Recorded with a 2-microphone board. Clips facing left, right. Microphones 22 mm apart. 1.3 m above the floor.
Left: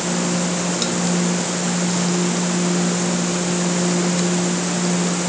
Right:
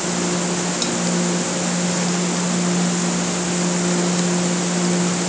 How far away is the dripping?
I don't hear dripping.